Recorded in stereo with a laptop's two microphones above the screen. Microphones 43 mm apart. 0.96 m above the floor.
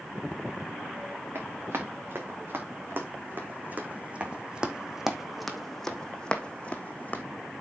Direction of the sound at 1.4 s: 60° right (ahead or behind).